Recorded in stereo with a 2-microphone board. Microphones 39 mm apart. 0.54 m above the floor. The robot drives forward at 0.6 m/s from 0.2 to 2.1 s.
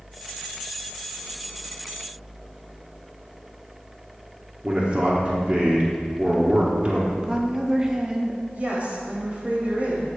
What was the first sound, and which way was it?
A man speaking, 30° right (ahead or behind).